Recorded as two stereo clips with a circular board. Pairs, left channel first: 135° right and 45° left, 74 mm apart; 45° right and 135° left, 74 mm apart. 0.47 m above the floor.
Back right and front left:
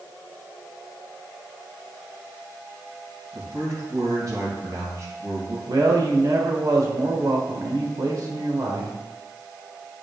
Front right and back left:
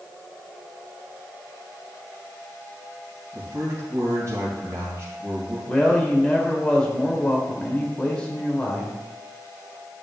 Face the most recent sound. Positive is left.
turn(degrees=30)